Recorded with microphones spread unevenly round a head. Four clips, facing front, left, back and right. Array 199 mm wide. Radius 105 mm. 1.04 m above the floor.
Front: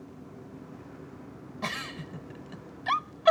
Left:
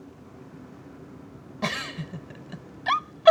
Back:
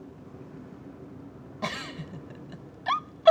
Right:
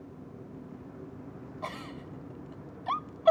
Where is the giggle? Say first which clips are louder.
Left 9 dB, back 2 dB; 90° left.